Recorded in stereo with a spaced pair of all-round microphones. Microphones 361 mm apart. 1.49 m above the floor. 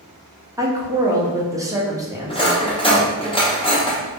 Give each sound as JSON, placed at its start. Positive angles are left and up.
{"t": 0.6, "sound": "a woman speaking", "side_deg": -10, "distance_m": 0.6}
{"t": 2.3, "sound": "cutlery clinking", "side_deg": 15, "distance_m": 0.6}